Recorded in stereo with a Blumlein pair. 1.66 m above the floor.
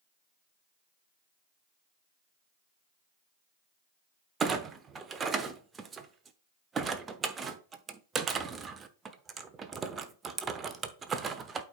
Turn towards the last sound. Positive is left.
turn(degrees=-20)